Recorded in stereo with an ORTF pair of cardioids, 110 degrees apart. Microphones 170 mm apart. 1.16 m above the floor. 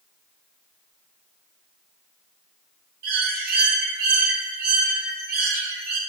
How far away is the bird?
About 0.8 m.